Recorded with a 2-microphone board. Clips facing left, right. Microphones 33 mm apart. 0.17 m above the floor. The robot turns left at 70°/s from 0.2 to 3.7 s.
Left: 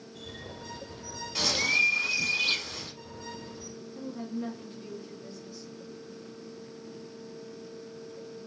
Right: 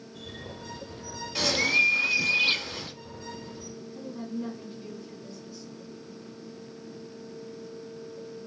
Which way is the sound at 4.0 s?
10° left (ahead or behind).